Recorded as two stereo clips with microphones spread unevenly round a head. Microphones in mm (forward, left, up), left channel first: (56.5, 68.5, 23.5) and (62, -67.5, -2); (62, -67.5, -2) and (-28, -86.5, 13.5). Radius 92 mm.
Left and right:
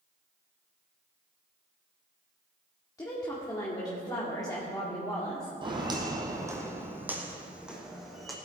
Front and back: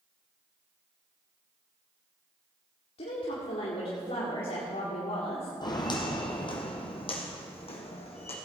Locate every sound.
3.0 s a woman speaking: 25° left, 2.0 m
5.6 s footsteps: 30° right, 2 m; by 8.4 s 5° left, 3 m